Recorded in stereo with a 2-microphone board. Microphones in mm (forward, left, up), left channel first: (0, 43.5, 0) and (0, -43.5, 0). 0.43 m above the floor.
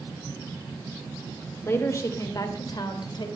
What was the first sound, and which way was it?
A woman speaking, 25° left (ahead or behind).